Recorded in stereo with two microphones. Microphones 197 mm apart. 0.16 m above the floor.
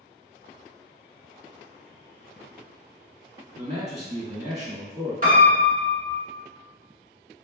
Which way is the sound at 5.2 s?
45° right (ahead or behind).